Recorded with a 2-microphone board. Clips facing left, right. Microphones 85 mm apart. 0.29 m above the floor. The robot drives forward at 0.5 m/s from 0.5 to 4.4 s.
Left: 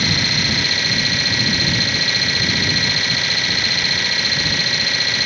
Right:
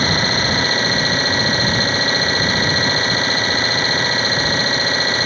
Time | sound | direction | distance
0.0 | an engine running | 35° right (ahead or behind) | ?